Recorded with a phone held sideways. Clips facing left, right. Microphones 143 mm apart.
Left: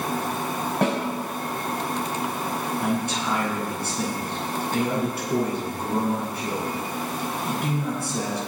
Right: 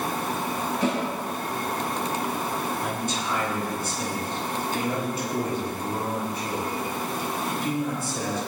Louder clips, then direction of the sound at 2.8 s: Left 4 dB; 60° left (ahead or behind).